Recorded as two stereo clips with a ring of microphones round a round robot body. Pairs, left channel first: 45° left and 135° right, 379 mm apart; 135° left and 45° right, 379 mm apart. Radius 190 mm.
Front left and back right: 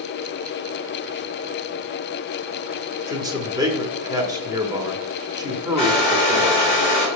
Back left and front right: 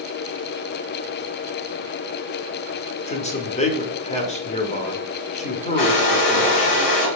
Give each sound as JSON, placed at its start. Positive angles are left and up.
{"t": 3.1, "sound": "a man speaking", "azimuth_deg": 165, "distance_m": 1.0}
{"t": 5.8, "sound": "a hair dryer", "azimuth_deg": 115, "distance_m": 3.5}